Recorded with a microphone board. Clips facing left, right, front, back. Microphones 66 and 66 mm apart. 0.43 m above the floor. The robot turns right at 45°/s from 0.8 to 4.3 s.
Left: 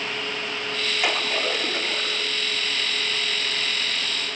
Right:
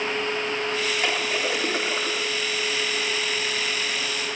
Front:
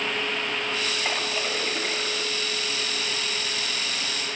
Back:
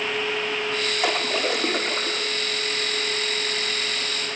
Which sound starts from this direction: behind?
A splash, at 1.0 s.